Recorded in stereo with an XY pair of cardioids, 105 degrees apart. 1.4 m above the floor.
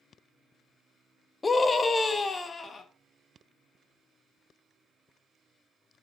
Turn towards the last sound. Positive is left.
turn(degrees=35)